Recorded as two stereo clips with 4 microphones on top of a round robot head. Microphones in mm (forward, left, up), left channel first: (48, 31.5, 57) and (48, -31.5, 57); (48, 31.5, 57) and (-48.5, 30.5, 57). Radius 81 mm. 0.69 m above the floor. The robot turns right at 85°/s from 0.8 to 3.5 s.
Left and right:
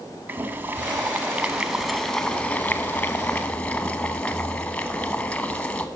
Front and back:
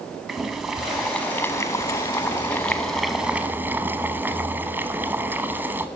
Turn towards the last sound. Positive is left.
turn(degrees=140)